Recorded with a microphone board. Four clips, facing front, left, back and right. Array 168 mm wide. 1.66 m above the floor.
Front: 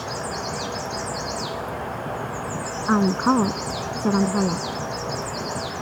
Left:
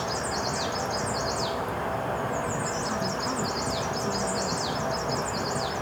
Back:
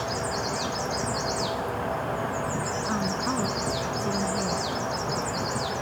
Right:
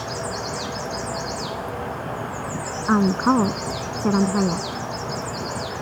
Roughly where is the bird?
I don't hear a bird.